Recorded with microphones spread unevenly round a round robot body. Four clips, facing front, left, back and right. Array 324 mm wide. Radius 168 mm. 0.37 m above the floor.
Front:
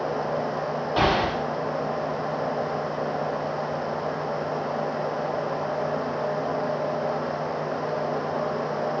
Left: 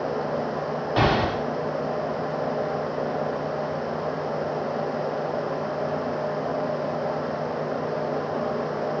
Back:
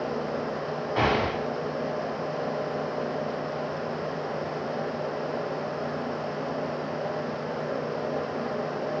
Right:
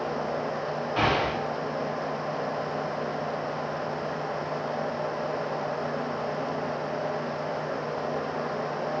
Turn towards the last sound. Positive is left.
turn(degrees=60)